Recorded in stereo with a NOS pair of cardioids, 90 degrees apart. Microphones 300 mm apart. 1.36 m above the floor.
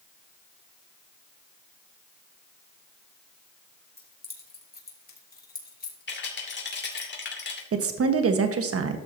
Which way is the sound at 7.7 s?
45° right.